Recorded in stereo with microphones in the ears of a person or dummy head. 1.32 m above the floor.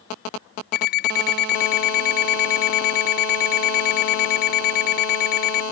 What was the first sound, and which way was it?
An alarm clock, 50° left (ahead or behind).